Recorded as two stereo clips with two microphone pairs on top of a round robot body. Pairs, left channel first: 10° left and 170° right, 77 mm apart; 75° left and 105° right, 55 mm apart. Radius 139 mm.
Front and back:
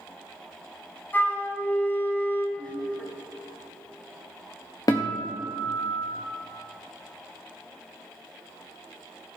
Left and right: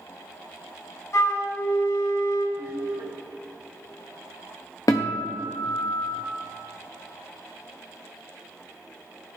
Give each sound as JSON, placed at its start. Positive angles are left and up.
{"t": 1.1, "sound": "a flute", "azimuth_deg": 80, "distance_m": 2.0}
{"t": 2.6, "sound": "laughter", "azimuth_deg": -70, "distance_m": 4.0}
{"t": 4.9, "sound": "a guitar", "azimuth_deg": 50, "distance_m": 0.6}